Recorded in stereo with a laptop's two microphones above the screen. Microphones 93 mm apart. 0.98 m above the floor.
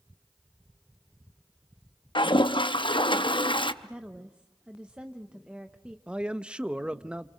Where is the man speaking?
10° right (ahead or behind), 0.9 m.